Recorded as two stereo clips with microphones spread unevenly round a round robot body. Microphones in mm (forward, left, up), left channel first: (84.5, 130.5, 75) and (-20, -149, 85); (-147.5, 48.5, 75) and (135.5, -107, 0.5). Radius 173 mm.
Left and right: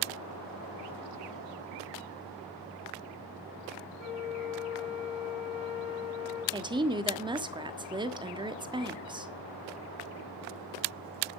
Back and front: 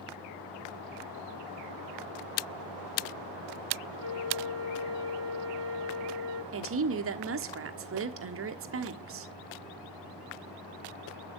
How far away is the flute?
About 5.5 m.